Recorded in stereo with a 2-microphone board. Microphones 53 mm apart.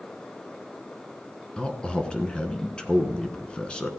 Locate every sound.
1.6 s a man speaking: 20° left (ahead or behind), 1.1 m